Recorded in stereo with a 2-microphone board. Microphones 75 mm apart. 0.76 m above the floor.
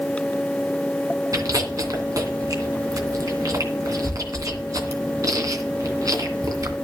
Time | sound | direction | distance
1.3 | chewing | 50° right (ahead or behind) | 2.5 m